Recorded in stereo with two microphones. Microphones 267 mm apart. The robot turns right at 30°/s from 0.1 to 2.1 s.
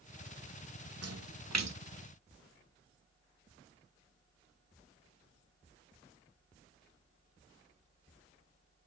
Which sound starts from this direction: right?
A splash, at 1.0 s.